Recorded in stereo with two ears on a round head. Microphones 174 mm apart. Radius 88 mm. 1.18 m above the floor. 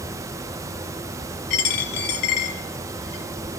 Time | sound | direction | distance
1.5 | a dropped coin | 55° left (ahead or behind) | 4.5 m